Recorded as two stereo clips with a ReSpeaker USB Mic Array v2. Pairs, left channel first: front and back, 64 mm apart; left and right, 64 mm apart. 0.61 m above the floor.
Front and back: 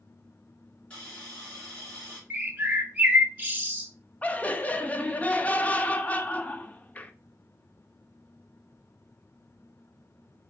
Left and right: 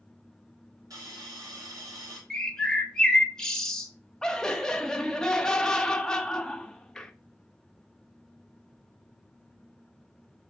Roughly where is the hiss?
Right.